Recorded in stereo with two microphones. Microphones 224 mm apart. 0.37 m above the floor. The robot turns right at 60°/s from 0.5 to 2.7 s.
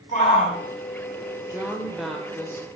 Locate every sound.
0.1 s a shout: 35° left (ahead or behind), 3 m; by 0.6 s 30° left (ahead or behind), 3 m
1.5 s a woman speaking: 15° right (ahead or behind), 1.4 m; by 2.7 s 15° left (ahead or behind), 1.4 m